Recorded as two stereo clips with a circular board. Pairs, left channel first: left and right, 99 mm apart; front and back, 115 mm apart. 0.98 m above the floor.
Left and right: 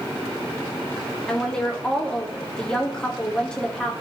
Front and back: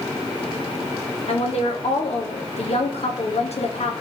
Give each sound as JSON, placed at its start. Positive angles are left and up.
{"t": 1.3, "sound": "a woman speaking", "azimuth_deg": 10, "distance_m": 1.8}